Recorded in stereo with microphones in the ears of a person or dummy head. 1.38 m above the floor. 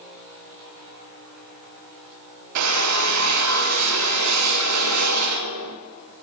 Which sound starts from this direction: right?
A drill, at 2.5 s.